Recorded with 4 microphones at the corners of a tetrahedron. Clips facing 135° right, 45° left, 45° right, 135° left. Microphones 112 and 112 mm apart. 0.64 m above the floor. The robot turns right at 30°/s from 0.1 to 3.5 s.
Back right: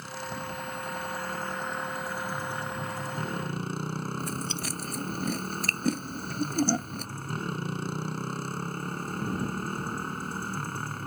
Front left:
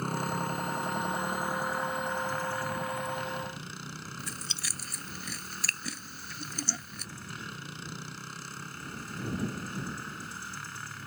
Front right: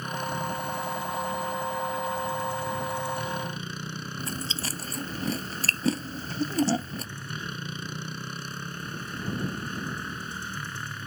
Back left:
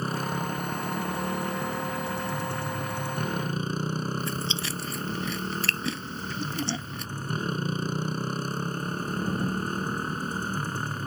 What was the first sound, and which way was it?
A motorcycle, 80° left.